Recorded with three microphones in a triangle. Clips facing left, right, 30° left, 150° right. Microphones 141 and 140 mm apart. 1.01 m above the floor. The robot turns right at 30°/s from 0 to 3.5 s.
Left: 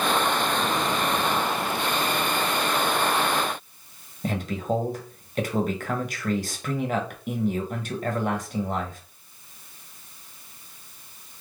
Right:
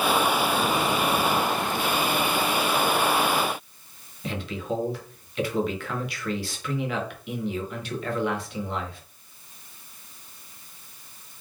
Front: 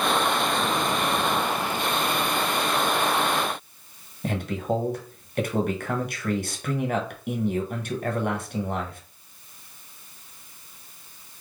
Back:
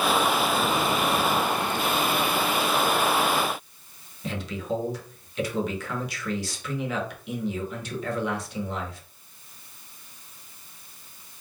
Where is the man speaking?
55° left, 1.2 m.